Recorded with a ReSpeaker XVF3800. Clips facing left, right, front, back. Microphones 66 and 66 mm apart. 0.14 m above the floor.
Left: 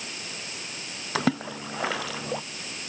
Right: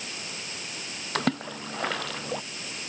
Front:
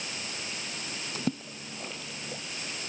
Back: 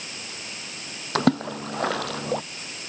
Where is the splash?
175° left.